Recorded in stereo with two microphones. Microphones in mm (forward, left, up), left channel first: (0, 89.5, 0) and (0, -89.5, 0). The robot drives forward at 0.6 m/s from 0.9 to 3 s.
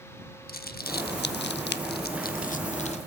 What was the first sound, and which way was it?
Crumpling, 55° left (ahead or behind).